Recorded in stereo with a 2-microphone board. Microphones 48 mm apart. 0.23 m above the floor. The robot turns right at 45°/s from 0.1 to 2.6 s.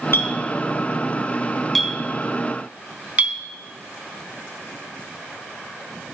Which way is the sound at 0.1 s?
55° left (ahead or behind).